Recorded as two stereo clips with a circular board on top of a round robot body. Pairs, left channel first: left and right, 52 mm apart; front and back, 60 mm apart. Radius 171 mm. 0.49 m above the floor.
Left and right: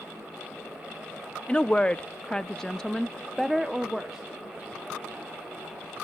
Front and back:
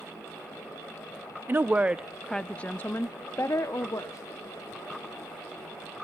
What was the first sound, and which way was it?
A woman speaking, 150° left.